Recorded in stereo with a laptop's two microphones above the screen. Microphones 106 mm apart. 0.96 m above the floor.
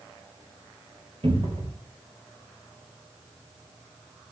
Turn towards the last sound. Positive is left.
turn(degrees=-60)  # may be behind; listen again after turning